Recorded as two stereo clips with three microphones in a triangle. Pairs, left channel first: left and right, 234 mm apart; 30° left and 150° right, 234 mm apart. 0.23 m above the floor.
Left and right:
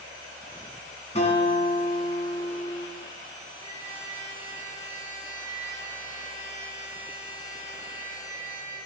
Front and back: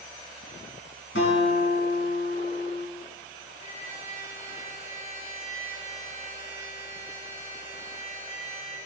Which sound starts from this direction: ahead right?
A trumpet, at 3.6 s.